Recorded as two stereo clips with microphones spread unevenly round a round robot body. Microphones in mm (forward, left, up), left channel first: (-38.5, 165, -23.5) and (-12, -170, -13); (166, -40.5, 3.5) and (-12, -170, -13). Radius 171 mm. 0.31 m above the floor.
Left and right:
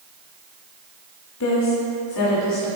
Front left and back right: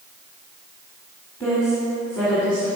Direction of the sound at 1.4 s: 120° left.